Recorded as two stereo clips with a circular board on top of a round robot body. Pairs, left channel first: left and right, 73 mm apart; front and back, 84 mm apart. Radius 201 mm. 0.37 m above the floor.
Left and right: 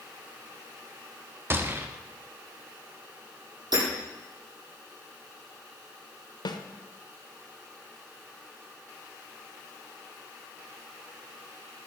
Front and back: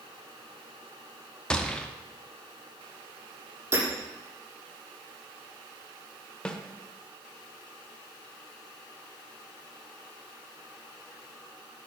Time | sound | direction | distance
1.5 | a gunshot | 70° right | 1.6 m
3.7 | hammering | 115° right | 7.5 m
6.5 | a snare drum | 80° left | 1.3 m